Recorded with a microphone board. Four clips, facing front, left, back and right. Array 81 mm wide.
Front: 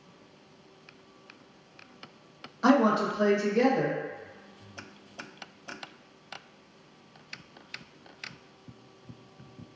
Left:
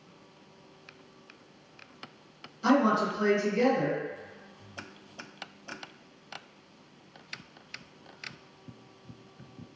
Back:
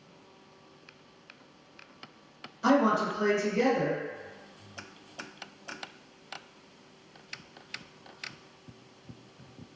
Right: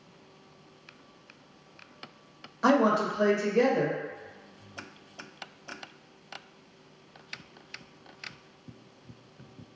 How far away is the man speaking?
About 0.8 m.